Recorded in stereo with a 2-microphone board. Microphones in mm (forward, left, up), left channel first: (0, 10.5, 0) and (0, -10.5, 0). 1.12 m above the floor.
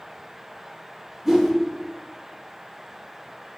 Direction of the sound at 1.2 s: 10° right (ahead or behind).